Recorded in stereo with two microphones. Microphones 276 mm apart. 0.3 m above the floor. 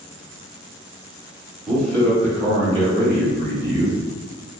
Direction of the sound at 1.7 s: Centre (ahead or behind).